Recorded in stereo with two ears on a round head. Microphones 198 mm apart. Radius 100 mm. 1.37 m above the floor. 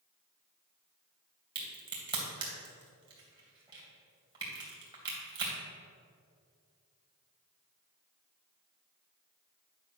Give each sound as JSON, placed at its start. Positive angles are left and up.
{"t": 1.6, "sound": "a crack", "side_deg": -20, "distance_m": 3.0}